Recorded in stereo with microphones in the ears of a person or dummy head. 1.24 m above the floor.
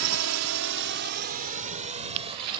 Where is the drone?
80° right; by 2.6 s 25° right (ahead or behind).